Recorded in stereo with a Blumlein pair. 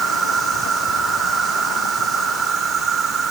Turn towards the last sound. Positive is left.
turn(degrees=-20)